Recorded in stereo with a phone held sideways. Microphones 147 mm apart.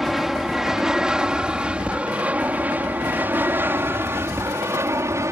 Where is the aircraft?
Centre (ahead or behind); by 5.3 s 20° right (ahead or behind).